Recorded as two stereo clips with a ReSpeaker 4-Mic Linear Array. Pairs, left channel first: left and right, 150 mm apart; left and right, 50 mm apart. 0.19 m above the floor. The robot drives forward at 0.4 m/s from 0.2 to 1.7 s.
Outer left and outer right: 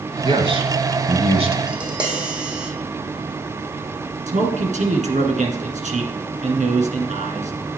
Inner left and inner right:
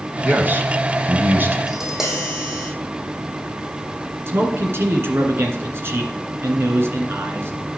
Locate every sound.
0.2 s a man speaking: 40° right (ahead or behind), 1.7 m; by 1.6 s 45° right (ahead or behind), 1.6 m
1.7 s tapping: 10° right (ahead or behind), 2.5 m
4.3 s a man speaking: 55° right (ahead or behind), 2.0 m